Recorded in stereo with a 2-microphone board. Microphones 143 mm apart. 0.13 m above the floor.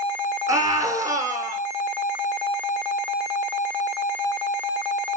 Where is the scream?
25° right (ahead or behind), 2.5 m.